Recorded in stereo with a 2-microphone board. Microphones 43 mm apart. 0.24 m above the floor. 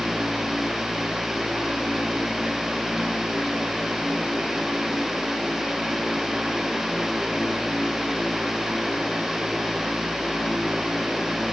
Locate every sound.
Only background noise.